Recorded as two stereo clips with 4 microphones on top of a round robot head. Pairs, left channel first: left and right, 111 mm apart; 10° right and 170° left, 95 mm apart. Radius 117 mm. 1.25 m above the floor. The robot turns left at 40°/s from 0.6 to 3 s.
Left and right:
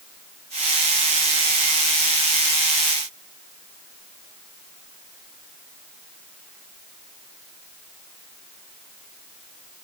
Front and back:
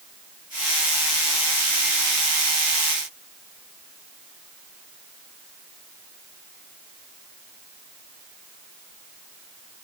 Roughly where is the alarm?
No alarm in this recording.